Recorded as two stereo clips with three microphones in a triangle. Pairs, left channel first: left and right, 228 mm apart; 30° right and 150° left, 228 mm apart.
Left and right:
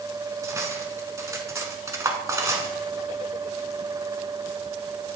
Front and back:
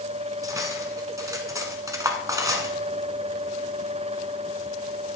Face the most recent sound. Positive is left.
turn(degrees=-150)